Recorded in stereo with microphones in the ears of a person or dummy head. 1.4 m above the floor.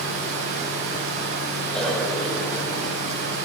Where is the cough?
5° left (ahead or behind), 8.5 m.